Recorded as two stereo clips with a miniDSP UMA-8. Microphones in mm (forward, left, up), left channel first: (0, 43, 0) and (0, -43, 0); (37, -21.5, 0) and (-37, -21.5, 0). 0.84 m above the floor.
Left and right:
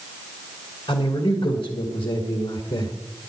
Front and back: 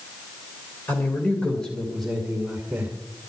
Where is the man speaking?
65° left, 3 m; by 2.9 s 110° left, 2.5 m.